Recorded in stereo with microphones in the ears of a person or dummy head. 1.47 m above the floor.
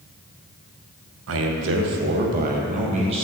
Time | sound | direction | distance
1.3 | a man speaking | 65° right (ahead or behind) | 0.9 m